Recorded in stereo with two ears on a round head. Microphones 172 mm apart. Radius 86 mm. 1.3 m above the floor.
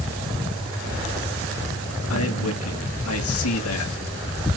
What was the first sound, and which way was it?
A man speaking, 80° left.